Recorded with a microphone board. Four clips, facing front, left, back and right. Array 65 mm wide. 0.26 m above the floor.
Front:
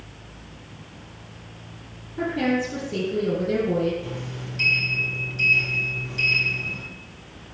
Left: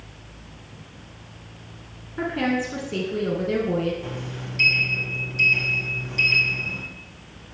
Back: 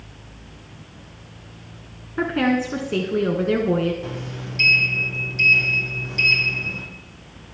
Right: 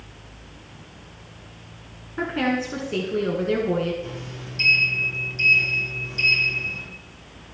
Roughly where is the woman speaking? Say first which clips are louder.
Even, back 3 dB; behind.